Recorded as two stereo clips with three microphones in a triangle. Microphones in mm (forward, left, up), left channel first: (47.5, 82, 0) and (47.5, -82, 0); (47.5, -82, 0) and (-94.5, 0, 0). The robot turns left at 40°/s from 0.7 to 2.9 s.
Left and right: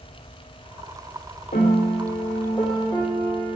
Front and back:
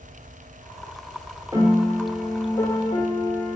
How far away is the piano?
About 2 m.